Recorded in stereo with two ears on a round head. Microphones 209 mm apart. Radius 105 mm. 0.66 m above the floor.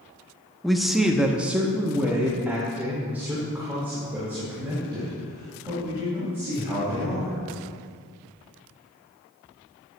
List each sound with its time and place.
0.6 s a man speaking: centre (ahead or behind), 0.7 m; by 7.4 s 10° right (ahead or behind), 4.5 m